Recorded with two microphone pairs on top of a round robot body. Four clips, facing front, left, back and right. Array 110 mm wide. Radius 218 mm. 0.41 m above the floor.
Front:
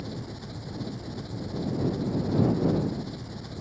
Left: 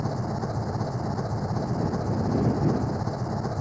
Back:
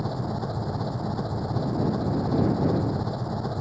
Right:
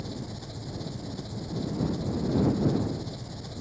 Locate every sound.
0.0 s an engine running: 135° left